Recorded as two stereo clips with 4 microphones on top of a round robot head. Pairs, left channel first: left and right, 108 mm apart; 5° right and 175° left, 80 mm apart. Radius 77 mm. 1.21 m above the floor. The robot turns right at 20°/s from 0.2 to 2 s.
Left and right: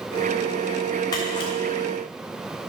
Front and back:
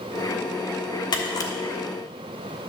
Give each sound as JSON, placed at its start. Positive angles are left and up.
{"t": 1.1, "sound": "a camera shutter", "azimuth_deg": 30, "distance_m": 1.2}